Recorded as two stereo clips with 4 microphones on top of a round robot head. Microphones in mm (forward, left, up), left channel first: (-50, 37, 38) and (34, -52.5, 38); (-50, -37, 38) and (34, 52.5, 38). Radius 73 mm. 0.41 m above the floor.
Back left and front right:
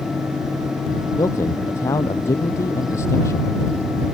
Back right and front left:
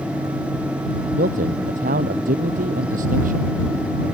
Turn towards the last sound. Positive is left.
turn(degrees=65)